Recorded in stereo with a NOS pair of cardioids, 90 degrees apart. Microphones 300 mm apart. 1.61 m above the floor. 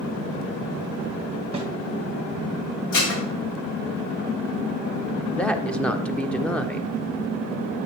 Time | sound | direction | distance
1.5 | a snare drum | 20° right | 1.5 m
2.9 | dishes clattering | 70° left | 2 m
5.3 | a woman speaking | 5° left | 0.9 m